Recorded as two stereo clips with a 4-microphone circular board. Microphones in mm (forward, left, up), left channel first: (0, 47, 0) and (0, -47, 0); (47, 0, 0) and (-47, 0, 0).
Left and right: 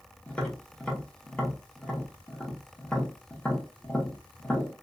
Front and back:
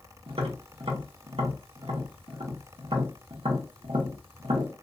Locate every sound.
0.3 s tapping: 165° left, 0.9 m